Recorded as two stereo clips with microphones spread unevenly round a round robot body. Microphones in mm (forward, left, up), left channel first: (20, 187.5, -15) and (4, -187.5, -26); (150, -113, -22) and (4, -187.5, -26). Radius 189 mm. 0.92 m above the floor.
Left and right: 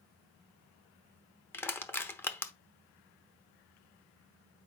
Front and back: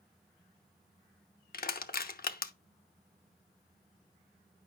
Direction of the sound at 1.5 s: 5° left.